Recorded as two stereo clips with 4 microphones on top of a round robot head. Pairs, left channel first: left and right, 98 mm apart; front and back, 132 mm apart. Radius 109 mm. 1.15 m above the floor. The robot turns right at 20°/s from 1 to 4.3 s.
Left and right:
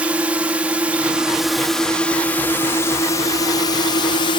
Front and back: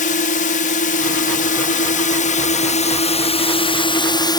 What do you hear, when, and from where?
0.0 s a drone: 10° right; by 4.4 s 55° left